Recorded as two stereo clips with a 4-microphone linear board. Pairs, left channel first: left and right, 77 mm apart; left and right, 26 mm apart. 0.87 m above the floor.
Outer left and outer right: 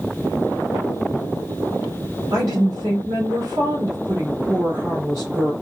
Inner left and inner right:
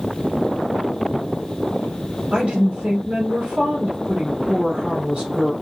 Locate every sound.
2.3 s a woman speaking: 50° right (ahead or behind), 2.5 m